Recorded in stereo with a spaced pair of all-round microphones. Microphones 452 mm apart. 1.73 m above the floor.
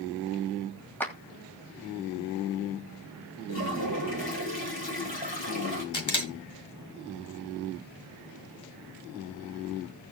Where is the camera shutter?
85° left, 1.8 m.